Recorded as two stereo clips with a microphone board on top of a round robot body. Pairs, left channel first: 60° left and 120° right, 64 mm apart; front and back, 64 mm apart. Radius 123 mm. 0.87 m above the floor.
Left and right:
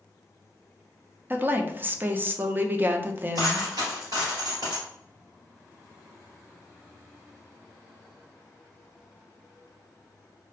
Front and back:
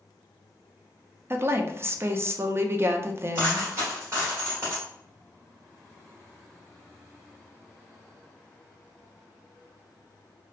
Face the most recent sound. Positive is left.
turn(degrees=-135)